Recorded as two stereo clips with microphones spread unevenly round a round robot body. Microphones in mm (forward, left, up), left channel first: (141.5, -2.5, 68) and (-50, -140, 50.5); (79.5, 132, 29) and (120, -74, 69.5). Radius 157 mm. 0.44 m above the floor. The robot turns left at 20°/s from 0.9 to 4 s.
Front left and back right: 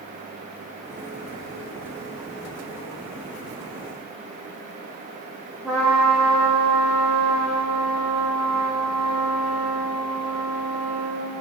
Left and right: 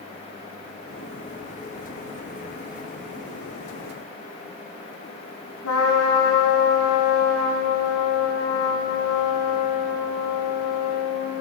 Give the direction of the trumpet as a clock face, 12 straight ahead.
8 o'clock.